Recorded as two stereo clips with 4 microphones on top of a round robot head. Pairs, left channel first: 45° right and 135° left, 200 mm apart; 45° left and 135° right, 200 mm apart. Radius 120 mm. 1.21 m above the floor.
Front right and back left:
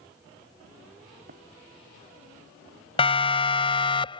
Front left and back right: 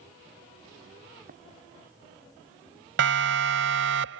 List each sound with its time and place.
1.3 s running footsteps: straight behind
3.0 s a siren: 110° right